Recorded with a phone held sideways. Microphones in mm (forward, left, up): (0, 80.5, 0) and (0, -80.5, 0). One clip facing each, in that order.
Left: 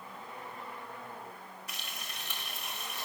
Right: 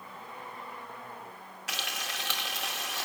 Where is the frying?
75° right (ahead or behind), 1.4 m.